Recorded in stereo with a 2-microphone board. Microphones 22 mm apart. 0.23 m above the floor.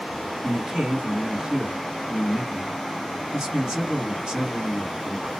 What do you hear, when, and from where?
0.4 s a man speaking: 20° right (ahead or behind), 1.9 m